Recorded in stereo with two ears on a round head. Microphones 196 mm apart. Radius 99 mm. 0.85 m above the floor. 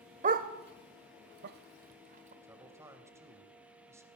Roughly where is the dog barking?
Right.